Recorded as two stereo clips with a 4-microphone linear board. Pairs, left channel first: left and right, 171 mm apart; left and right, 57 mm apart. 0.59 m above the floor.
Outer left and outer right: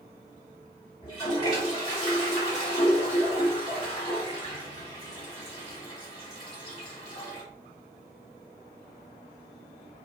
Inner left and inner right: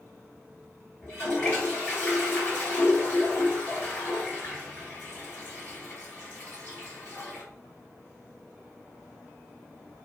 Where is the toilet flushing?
25° left (ahead or behind), 1.7 m.